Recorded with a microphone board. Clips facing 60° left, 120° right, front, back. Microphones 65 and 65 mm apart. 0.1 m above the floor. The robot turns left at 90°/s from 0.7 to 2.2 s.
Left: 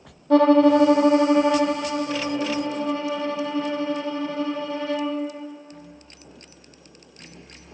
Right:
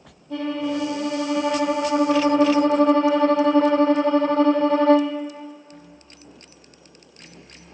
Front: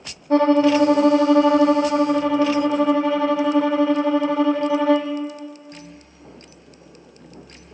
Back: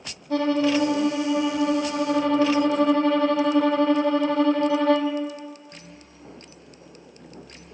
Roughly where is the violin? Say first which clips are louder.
Left 11 dB, front 6 dB; ahead left.